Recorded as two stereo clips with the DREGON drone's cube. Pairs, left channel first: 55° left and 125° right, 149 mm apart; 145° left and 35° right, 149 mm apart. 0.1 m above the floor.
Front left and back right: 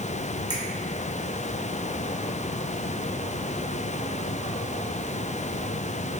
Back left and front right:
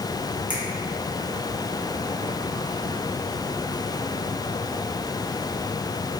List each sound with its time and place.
0.5 s a finger snap: 105° right, 1.0 m